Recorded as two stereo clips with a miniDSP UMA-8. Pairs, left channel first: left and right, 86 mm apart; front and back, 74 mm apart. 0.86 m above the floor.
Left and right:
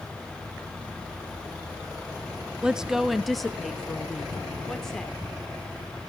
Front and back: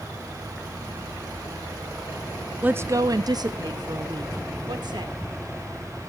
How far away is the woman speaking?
About 0.5 m.